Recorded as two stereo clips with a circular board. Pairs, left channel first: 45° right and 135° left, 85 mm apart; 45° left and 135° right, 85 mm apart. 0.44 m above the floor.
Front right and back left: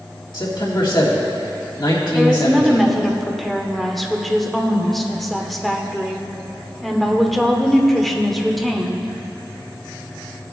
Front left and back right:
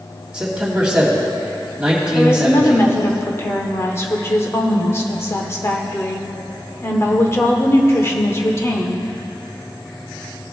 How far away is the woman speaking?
About 1.0 m.